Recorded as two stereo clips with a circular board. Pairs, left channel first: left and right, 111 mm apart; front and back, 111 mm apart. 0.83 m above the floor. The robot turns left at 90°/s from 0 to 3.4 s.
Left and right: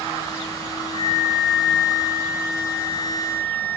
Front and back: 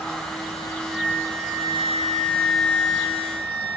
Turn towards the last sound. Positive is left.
turn(degrees=15)